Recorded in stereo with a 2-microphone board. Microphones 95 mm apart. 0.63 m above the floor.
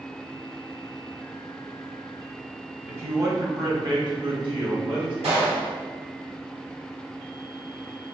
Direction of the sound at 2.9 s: 20° right (ahead or behind).